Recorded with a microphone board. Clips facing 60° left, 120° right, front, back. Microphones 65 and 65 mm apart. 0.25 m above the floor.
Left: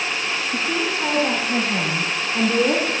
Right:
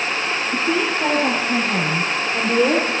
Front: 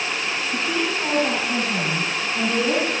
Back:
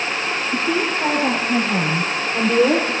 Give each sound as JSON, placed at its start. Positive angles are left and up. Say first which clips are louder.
{"t": 0.5, "sound": "a woman speaking", "louder": "right 4 dB, back 4 dB", "azimuth_deg": -150, "distance_m": 6.5}